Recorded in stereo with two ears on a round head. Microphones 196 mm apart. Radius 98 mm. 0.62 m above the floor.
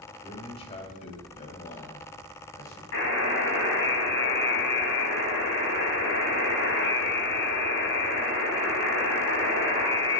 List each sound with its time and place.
0.2 s a man speaking: 25° left (ahead or behind), 2.5 m; by 2.8 s 50° left (ahead or behind), 3 m
2.9 s a buzzer: 65° left (ahead or behind), 5 m